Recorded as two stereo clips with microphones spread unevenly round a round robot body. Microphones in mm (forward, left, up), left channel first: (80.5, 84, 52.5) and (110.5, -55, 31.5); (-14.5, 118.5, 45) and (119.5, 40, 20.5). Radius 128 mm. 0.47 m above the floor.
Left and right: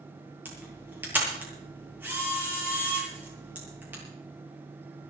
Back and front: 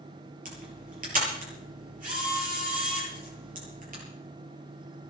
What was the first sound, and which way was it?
A camera shutter, straight ahead.